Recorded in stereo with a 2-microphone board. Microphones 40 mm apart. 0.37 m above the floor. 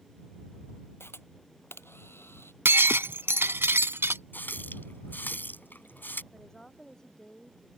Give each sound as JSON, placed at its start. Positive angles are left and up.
{"t": 1.0, "sound": "a camera shutter", "side_deg": 80}
{"t": 2.6, "sound": "breaking glass", "side_deg": -75}
{"t": 4.3, "sound": "a running tap", "side_deg": 55}
{"t": 6.3, "sound": "a woman speaking", "side_deg": 15}